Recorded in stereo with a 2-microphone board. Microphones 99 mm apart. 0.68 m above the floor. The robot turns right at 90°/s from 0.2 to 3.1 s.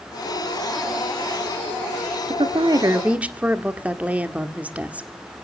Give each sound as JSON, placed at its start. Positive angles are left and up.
{"t": 2.3, "sound": "a woman speaking", "azimuth_deg": -90, "distance_m": 1.4}